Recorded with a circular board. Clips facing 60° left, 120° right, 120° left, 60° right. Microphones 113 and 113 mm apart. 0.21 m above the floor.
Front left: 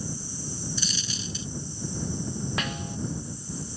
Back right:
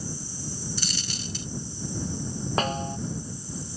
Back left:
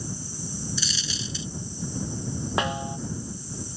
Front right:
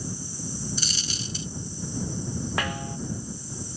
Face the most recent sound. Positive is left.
turn(degrees=-170)